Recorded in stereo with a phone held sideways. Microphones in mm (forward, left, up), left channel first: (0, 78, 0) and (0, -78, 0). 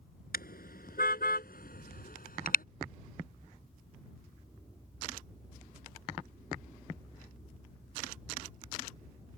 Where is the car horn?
70° left (ahead or behind); by 2.6 s 65° left (ahead or behind).